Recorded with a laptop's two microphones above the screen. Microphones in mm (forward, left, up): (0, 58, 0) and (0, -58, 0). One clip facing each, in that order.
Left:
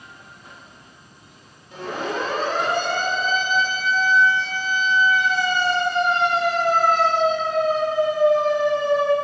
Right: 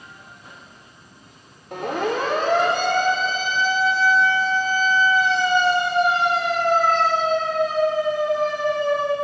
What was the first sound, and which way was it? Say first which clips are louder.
A siren: right 4 dB; 60° right (ahead or behind).